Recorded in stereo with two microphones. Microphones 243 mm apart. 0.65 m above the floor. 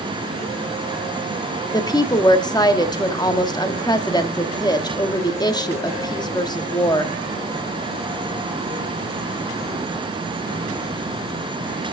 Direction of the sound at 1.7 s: 15° left (ahead or behind).